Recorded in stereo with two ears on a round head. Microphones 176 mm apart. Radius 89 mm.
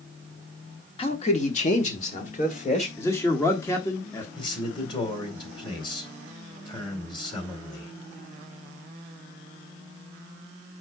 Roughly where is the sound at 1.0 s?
Left.